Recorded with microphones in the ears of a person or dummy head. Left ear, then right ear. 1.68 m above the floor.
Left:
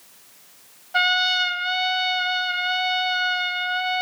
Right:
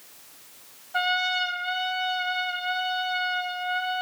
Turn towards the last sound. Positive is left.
turn(degrees=25)  # may be behind; listen again after turning